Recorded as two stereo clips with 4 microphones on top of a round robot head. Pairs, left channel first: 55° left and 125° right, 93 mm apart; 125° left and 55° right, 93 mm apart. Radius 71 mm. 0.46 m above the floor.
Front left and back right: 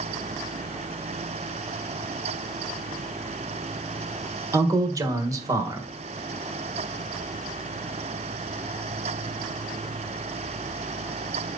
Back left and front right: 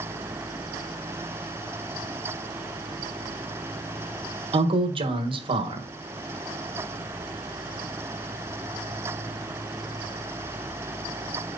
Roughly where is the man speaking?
Right.